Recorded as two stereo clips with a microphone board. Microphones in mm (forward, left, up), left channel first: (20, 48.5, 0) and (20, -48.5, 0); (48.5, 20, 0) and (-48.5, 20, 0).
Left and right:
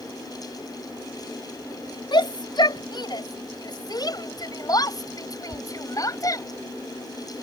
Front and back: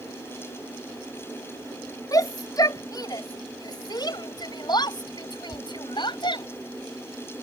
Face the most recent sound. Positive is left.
turn(degrees=35)